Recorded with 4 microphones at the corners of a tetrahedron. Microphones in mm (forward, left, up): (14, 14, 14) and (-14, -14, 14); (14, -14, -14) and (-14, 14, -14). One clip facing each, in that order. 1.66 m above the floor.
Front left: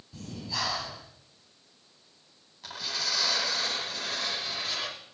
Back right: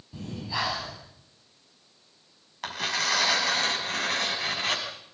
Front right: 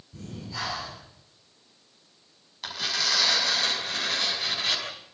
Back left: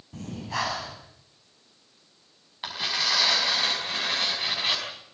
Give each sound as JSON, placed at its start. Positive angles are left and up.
{"t": 0.1, "sound": "breathing", "azimuth_deg": 155, "distance_m": 7.5}
{"t": 2.6, "sound": "tearing paper", "azimuth_deg": -155, "distance_m": 6.0}